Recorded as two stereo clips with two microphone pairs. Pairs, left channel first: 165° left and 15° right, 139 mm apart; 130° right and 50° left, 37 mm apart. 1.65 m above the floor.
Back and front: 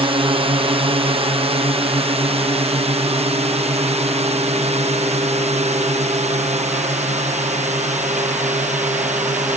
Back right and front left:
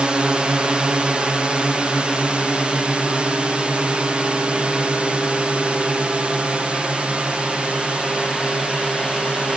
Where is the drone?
Straight ahead; by 9.6 s 5° right.